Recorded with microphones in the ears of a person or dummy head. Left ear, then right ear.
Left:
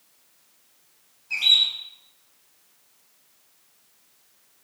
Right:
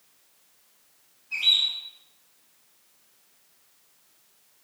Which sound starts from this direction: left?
A bird, at 1.3 s.